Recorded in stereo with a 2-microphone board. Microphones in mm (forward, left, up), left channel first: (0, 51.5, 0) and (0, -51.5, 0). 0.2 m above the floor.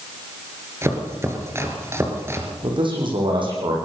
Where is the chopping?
25° right (ahead or behind), 3.5 m.